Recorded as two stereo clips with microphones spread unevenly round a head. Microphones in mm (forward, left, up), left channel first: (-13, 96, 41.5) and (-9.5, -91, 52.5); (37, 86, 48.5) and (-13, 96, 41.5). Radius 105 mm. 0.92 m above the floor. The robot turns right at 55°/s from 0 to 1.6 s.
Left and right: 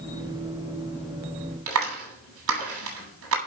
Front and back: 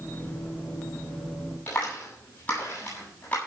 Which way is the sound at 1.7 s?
85° right.